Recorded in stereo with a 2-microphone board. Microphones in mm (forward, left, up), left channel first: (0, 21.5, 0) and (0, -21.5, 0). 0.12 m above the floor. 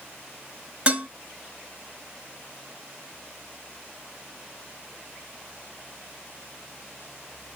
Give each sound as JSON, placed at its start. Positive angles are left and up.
{"t": 0.9, "sound": "dishes clattering", "side_deg": -30, "distance_m": 0.9}